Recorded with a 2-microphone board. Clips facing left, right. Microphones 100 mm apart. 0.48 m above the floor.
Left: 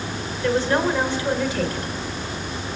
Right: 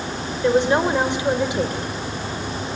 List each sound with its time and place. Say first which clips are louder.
0.4 s a woman speaking: right 3 dB; 20° right (ahead or behind), 2.0 m